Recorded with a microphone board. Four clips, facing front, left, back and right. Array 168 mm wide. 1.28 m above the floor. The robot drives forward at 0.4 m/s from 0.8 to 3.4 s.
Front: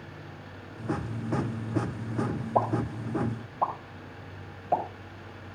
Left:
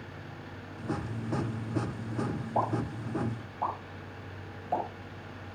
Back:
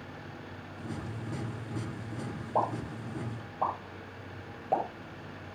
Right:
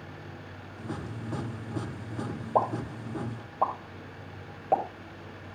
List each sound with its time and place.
2.5 s a pop: 95° right, 6.5 m